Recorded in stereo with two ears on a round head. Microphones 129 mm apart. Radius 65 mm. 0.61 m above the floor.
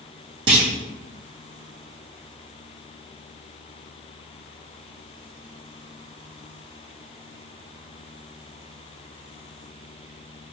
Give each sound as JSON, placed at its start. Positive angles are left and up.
{"t": 0.5, "sound": "a clunk", "side_deg": -35, "distance_m": 1.7}